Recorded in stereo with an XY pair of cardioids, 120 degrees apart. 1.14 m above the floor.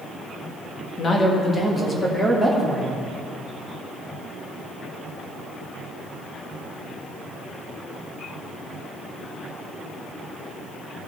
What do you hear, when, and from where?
1.0 s a man speaking: 35° left, 1.7 m; by 3.0 s 5° left, 2.5 m